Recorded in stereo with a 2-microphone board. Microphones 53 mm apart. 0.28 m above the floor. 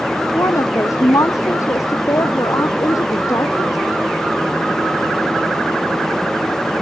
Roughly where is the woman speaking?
Left.